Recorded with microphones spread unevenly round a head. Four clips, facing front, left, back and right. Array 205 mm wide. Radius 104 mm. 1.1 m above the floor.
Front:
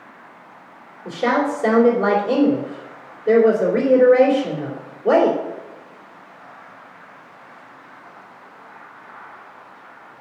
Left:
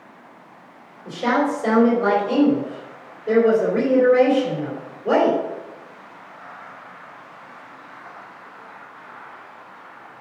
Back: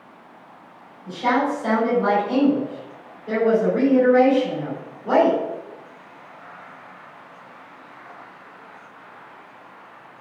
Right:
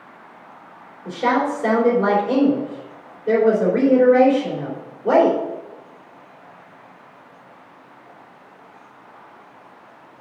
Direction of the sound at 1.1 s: 25° right.